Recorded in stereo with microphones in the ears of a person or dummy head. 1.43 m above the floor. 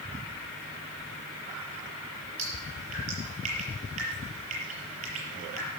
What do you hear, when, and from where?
2.4 s dripping: 40° right (ahead or behind), 7 m